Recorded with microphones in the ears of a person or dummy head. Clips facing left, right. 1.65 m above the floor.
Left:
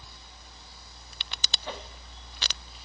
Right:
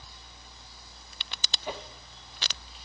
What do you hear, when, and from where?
1.7 s a whoosh: 10° right (ahead or behind), 0.6 m